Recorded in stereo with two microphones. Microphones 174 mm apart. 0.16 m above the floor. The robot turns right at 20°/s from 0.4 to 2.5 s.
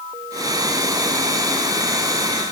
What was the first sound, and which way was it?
Only background noise.